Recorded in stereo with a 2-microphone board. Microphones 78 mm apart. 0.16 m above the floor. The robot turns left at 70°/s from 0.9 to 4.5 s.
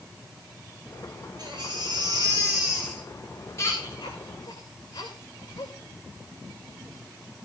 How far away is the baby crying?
About 5.5 m.